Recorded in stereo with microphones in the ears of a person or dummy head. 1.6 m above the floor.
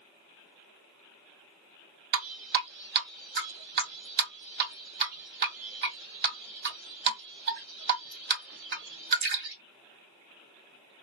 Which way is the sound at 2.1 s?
50° right (ahead or behind).